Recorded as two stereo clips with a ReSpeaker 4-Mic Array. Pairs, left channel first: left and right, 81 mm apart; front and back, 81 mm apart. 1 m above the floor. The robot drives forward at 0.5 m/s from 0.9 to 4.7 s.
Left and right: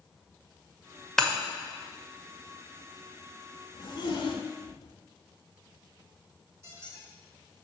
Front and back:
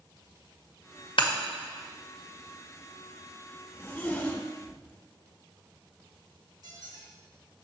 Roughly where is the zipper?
Ahead left.